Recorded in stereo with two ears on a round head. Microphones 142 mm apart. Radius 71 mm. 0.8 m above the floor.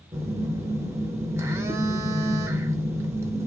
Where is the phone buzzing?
15° right (ahead or behind), 0.6 m.